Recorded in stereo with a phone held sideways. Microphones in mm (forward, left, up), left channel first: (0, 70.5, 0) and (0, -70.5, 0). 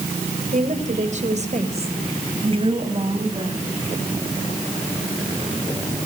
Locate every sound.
0.5 s a woman speaking: 60° right (ahead or behind), 3 m; by 3.6 s 35° right (ahead or behind), 5 m